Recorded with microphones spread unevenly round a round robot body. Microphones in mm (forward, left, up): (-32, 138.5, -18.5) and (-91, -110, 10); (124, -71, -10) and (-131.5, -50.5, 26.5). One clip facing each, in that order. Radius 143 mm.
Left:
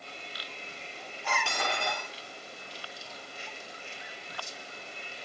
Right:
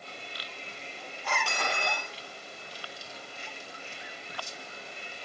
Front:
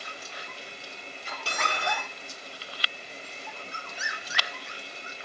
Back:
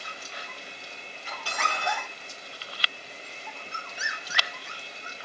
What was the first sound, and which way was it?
Cutlery clinking, 65° left.